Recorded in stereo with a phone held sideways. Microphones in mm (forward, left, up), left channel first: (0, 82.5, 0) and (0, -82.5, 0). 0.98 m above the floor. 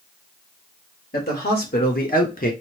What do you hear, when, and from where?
1.1 s a man speaking: 70° left (ahead or behind), 2.5 m; by 2.5 s 55° left (ahead or behind), 1.3 m